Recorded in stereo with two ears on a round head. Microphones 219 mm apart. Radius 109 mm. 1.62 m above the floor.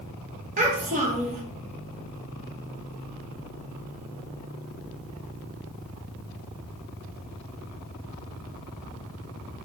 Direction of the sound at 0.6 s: 30° right (ahead or behind).